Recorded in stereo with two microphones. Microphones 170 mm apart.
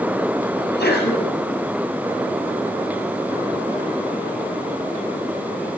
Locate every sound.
0.6 s a sneeze: 85° left, 8 m